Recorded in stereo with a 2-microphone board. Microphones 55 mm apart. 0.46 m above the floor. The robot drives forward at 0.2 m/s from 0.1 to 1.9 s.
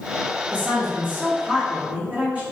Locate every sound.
0.5 s a woman speaking: 30° right (ahead or behind), 1.2 m